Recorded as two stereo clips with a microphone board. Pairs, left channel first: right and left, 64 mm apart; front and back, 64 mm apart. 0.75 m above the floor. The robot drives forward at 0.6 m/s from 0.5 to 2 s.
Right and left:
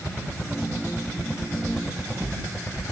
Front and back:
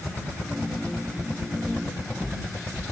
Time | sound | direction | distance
1.7 | footsteps | 75° left | 9.5 m